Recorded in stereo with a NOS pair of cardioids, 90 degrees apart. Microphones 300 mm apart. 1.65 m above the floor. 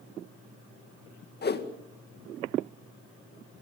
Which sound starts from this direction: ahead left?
A whoosh, at 1.4 s.